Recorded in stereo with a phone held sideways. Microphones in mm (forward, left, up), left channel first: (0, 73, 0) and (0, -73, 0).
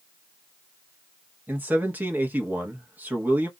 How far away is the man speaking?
About 0.9 m.